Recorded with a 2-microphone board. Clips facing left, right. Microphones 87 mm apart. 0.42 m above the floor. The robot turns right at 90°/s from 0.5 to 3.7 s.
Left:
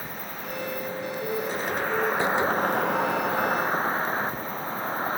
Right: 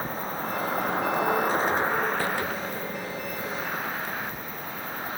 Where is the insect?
140° right; by 5.2 s 145° left.